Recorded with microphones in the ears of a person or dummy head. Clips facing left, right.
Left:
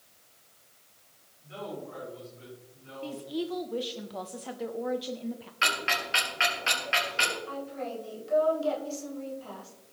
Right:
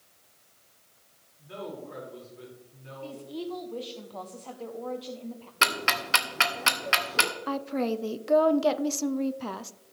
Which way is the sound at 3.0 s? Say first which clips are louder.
Left 3 dB; 20° left (ahead or behind).